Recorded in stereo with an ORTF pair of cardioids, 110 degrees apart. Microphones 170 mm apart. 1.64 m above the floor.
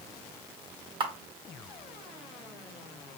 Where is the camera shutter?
30° right, 1.6 m.